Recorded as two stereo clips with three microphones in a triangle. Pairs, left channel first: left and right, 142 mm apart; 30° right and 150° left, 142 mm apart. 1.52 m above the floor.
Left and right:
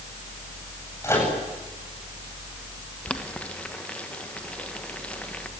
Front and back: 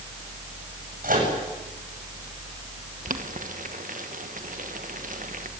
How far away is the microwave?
About 8.5 m.